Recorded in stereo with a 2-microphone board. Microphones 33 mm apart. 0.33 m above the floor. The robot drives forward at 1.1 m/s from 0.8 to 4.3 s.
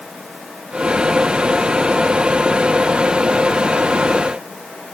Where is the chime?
I don't hear a chime.